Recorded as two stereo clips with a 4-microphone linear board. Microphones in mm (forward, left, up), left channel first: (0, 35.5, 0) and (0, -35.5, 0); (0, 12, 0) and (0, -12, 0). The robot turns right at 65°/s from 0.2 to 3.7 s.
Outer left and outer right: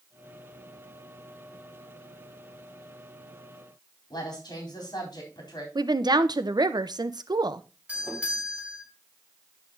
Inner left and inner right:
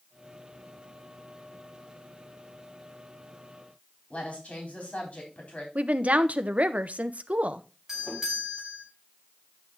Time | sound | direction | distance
4.1 | a woman speaking | 70° left (ahead or behind) | 3.5 m
5.8 | a woman speaking | 80° right | 0.8 m
7.9 | a doorbell | 20° right (ahead or behind) | 4 m